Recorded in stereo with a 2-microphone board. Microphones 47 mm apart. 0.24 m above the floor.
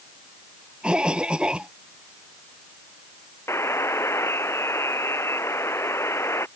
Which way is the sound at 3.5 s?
75° left (ahead or behind).